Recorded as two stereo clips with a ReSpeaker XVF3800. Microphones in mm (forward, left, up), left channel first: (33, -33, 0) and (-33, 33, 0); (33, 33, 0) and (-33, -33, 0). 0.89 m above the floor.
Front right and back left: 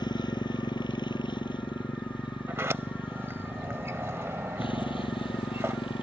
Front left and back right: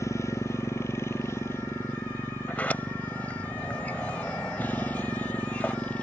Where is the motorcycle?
10° right; by 6.0 s 30° right.